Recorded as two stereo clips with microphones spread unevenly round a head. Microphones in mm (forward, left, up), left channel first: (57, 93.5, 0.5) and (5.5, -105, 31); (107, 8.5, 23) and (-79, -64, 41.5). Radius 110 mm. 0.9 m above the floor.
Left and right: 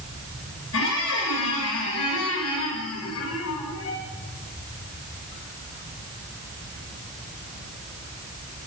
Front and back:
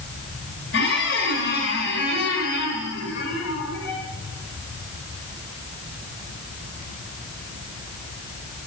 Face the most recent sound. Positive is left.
turn(degrees=60)